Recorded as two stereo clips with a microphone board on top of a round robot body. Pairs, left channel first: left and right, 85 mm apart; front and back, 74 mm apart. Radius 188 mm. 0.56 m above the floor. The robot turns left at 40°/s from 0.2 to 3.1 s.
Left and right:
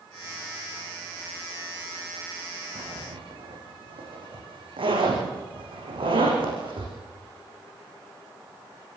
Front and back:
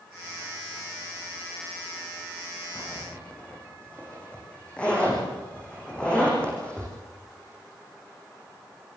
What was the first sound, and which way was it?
A zipper, 60° right.